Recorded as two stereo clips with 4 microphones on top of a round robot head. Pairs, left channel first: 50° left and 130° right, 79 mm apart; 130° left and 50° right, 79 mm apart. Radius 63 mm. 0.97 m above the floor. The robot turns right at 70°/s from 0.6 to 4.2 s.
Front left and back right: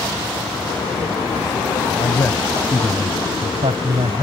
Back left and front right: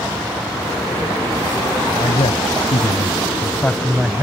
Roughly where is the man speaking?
Left.